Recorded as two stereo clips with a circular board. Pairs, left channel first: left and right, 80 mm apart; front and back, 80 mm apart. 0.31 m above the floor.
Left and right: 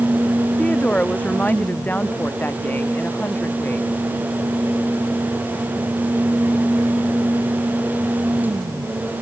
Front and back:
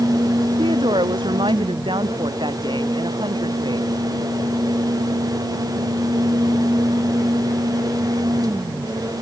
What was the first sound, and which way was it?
A woman speaking, 165° left.